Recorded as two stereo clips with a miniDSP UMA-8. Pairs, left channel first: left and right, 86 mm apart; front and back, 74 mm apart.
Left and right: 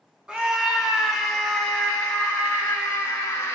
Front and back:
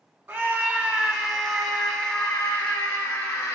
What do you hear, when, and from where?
0.3 s a scream: 150° right, 1.7 m; by 3.5 s 40° left, 2 m